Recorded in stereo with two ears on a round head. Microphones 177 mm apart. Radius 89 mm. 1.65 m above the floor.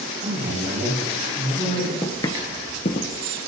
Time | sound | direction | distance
0.2 | a man speaking | 55° right (ahead or behind) | 5.5 m
2.0 | footsteps | 15° left (ahead or behind) | 1.7 m